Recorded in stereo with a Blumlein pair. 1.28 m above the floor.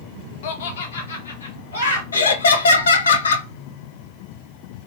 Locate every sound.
0.4 s laughter: 55° left, 0.7 m; by 2.0 s 80° left, 1.7 m
2.1 s laughter: 70° left, 0.7 m